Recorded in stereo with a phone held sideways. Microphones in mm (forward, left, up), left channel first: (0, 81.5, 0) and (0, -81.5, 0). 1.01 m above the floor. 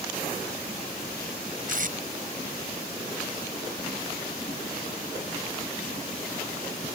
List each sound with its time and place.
1.7 s tape being pulled: 55° right (ahead or behind)